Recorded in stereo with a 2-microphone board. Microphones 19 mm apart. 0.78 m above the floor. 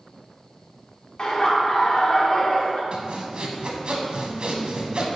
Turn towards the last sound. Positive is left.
turn(degrees=-55)  # may be behind; listen again after turning